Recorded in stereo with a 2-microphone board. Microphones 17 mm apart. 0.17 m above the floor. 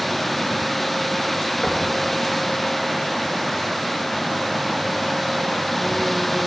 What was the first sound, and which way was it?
Knocking, 60° left (ahead or behind).